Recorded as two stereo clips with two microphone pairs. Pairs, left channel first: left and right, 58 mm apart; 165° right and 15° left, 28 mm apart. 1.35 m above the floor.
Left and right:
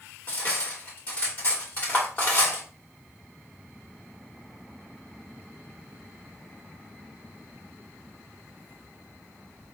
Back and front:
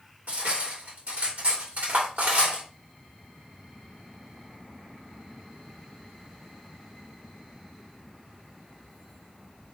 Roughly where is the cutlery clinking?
Ahead left.